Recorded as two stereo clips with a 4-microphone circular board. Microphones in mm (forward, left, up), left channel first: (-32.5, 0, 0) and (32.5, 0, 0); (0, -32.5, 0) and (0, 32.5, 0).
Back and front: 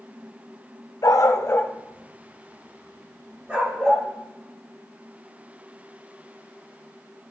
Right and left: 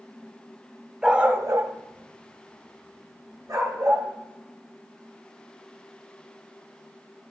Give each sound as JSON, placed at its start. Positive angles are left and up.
{"t": 1.0, "sound": "a dog barking", "azimuth_deg": 170, "distance_m": 0.6}